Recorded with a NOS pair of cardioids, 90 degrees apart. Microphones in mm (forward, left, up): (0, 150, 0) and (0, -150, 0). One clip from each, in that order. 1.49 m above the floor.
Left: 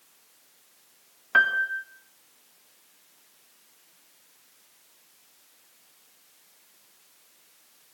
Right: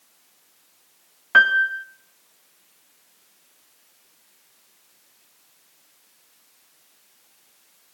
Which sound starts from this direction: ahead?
A piano, at 1.3 s.